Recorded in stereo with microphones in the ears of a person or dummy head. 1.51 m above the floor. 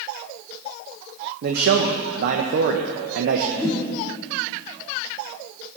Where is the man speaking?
55° right (ahead or behind), 1.0 m.